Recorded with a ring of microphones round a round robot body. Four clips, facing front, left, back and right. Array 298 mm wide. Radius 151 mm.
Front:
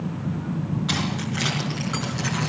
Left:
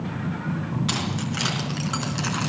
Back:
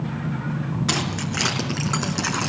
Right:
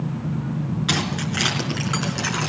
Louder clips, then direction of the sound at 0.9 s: Right 3 dB, back 1 dB; 165° right.